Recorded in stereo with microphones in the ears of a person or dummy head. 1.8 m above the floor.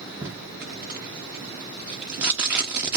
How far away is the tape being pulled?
About 0.7 m.